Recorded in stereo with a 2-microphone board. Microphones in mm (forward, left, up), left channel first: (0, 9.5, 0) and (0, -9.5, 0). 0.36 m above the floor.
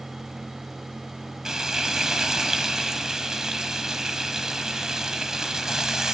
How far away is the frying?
About 1.1 m.